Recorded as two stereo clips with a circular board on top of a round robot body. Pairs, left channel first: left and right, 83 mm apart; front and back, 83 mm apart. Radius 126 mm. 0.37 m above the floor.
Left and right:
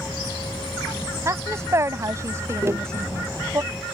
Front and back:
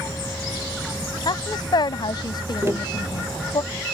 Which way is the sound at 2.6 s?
135° right.